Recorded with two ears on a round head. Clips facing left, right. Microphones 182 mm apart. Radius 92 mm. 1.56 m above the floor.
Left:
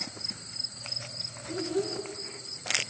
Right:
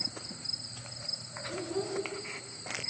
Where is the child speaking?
35° left (ahead or behind), 7 m.